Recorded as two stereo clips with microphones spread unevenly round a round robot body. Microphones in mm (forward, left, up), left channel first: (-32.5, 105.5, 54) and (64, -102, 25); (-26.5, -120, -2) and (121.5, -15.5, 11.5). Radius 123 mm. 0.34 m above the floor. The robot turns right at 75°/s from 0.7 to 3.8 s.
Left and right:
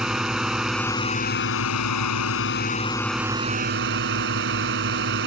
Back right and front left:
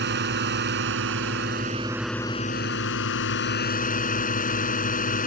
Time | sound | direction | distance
0.0 | a drone | 20° left | ?